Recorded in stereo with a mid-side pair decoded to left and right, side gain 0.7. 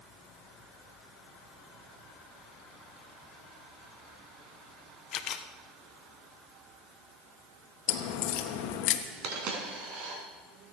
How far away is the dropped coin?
About 4.5 m.